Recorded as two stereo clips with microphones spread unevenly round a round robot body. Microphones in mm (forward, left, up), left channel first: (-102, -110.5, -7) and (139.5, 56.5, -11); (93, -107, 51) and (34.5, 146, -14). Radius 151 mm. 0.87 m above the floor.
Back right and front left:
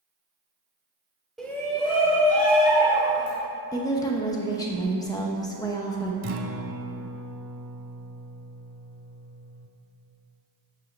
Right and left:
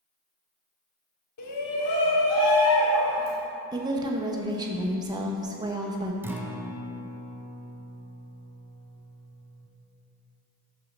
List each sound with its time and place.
1.4 s a shout: 55° right, 2 m; by 3.4 s 95° right, 4 m
3.7 s a woman speaking: 145° left, 0.8 m
6.2 s a guitar: 10° left, 1.0 m